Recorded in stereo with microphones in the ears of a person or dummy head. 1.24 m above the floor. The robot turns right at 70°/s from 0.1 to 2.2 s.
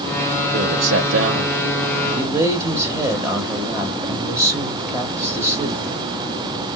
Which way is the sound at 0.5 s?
130° right.